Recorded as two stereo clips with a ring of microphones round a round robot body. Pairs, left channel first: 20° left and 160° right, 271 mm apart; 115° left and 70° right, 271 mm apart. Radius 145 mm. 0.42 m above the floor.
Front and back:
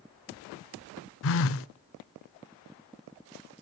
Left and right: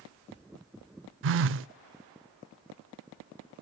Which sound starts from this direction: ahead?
A phone buzzing, at 1.2 s.